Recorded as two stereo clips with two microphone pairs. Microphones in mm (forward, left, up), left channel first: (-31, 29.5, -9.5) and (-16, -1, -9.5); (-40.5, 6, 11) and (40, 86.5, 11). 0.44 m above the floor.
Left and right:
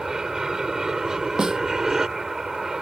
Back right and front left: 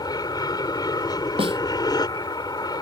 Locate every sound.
0.0 s an aircraft: 130° right
1.4 s a snare drum: 10° left